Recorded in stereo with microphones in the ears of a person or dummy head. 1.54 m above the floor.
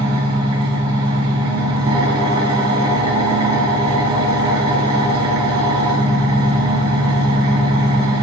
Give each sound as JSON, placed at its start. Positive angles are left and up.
{"t": 0.0, "sound": "an engine running", "side_deg": -30, "distance_m": 0.7}